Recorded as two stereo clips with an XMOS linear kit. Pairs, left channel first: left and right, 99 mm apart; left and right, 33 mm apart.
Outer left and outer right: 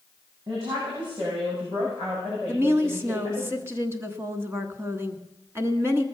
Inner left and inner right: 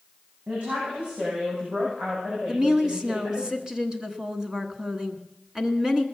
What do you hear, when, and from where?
0.5 s a woman speaking: 45° right (ahead or behind), 6.5 m; by 3.5 s 60° right (ahead or behind), 9 m
2.5 s a woman speaking: 25° right (ahead or behind), 1.4 m